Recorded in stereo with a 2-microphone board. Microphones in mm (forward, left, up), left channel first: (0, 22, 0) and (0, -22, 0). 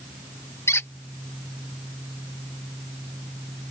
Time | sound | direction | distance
0.7 | a squeak | 70° left (ahead or behind) | ?